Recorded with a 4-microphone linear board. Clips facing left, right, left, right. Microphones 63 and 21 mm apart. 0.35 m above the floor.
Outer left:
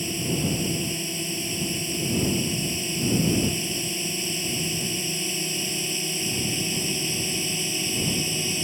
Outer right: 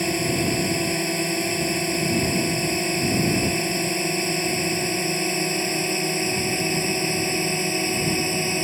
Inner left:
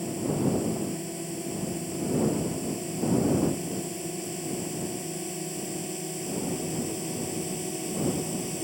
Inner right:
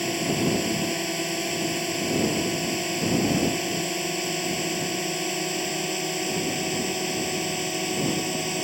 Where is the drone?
60° right (ahead or behind); by 8.6 s 45° right (ahead or behind).